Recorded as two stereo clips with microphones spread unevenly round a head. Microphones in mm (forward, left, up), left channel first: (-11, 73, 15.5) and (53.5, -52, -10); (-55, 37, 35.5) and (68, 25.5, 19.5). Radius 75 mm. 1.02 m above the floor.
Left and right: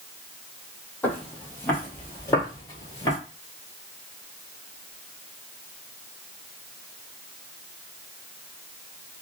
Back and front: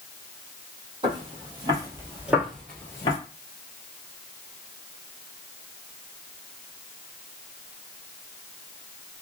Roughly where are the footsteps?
Ahead left.